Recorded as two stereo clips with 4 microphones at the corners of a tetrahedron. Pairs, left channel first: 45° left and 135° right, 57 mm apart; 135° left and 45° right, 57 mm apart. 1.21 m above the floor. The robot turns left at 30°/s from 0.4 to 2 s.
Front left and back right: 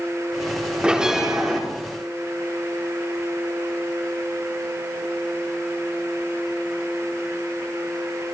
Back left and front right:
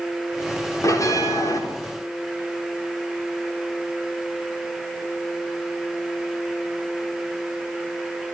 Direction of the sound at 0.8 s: 155° left.